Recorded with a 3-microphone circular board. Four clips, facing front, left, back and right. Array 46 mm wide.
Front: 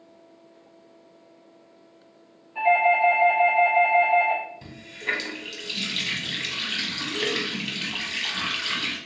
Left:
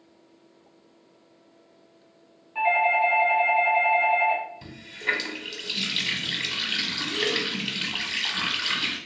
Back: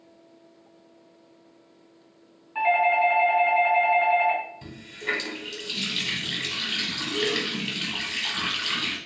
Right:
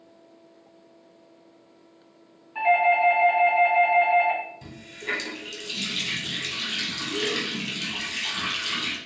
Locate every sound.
2.5 s a doorbell: 170° right, 1.7 m
4.6 s a running tap: 90° left, 0.8 m